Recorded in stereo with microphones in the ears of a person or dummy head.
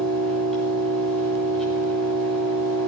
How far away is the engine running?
About 6.5 m.